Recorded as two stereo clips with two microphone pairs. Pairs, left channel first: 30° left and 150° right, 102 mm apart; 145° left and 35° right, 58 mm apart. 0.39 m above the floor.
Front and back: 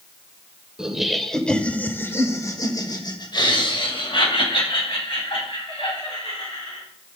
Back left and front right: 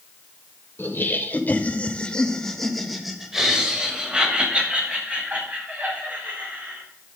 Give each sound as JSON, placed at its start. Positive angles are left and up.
{"t": 0.8, "sound": "laughter", "azimuth_deg": 130, "distance_m": 1.6}